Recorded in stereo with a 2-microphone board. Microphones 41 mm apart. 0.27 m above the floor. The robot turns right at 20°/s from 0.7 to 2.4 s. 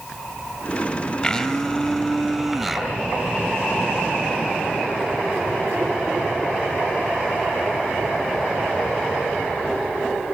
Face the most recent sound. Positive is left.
turn(degrees=-5)  # may be behind; listen again after turning